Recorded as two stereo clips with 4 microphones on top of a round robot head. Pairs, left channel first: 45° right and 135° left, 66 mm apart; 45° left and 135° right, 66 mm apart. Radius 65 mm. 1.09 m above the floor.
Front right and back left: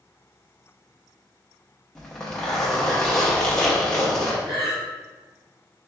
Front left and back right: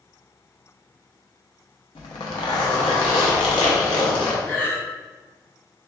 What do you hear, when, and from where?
1.9 s a zipper: 40° left, 0.5 m
4.5 s breathing: 105° left, 1.0 m